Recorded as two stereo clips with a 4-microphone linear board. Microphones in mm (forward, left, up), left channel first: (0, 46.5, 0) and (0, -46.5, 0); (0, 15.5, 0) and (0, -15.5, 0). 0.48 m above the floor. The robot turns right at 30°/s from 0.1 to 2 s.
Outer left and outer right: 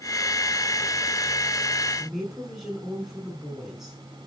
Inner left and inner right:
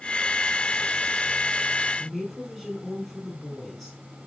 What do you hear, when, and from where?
2.0 s a woman speaking: centre (ahead or behind), 5 m